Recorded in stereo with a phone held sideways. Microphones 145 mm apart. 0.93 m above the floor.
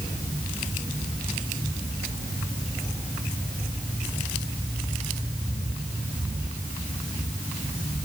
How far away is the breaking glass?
No breaking glass in this recording.